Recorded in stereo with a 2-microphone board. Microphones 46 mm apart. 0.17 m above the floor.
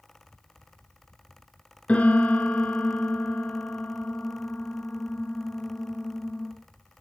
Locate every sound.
1.9 s a piano: 30° left (ahead or behind), 1.0 m